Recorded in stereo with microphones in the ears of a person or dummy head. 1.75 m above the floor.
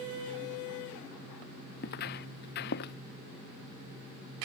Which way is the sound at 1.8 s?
50° left (ahead or behind).